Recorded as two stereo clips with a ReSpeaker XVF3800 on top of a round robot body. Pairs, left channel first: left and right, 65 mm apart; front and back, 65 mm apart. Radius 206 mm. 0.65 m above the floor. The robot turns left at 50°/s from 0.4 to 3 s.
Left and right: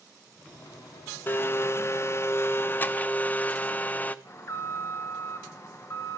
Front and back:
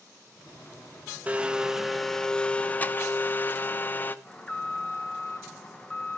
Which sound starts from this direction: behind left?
A blender, at 1.3 s.